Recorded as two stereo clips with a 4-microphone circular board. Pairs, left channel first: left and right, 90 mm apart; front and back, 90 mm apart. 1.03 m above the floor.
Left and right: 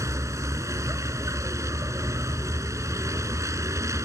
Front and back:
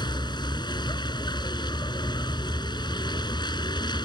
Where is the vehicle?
35° right.